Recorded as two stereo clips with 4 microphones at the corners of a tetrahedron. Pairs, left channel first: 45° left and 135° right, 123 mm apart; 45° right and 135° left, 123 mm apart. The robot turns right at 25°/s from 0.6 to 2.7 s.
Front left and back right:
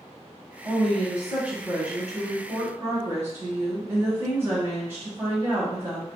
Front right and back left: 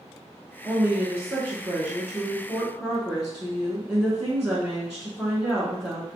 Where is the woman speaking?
155° left, 1.1 m; by 6.2 s 155° right, 1.1 m.